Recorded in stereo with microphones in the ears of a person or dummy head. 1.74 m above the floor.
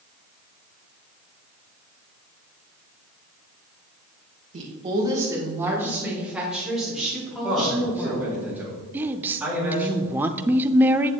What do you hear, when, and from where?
4.5 s a woman speaking: 40° right (ahead or behind), 2.0 m; by 8.4 s 10° left (ahead or behind), 6 m
7.4 s a man speaking: 10° right (ahead or behind), 3.5 m
8.9 s a woman speaking: 10° right (ahead or behind), 0.5 m